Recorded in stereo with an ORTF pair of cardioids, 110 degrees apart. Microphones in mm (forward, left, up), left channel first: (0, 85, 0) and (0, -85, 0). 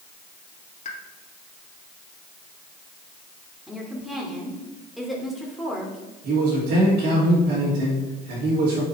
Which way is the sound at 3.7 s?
Straight ahead.